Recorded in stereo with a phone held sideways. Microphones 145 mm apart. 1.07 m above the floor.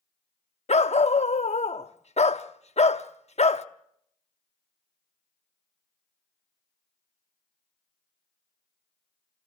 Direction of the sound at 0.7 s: 50° left (ahead or behind).